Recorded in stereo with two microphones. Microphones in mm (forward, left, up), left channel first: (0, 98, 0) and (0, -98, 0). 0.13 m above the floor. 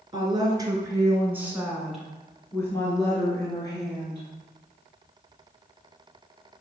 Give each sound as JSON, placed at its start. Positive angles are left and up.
{"t": 0.1, "sound": "a woman speaking", "side_deg": -25, "distance_m": 2.0}